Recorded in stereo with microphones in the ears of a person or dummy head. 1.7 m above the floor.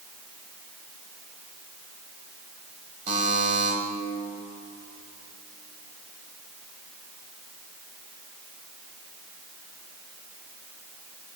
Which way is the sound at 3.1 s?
40° right (ahead or behind).